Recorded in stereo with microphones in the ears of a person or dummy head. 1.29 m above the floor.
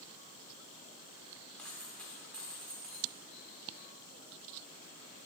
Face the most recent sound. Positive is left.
turn(degrees=10)  # may be behind; listen again after turning